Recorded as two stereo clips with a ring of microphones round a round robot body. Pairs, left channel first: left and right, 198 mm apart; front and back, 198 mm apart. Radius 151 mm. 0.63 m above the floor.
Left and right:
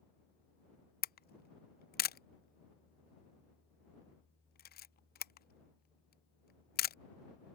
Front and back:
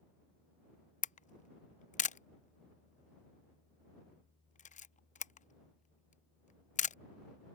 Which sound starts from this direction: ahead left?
A camera shutter, at 1.0 s.